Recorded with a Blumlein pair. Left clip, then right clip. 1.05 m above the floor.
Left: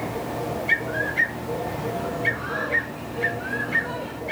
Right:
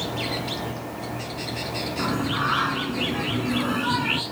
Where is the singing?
60° right.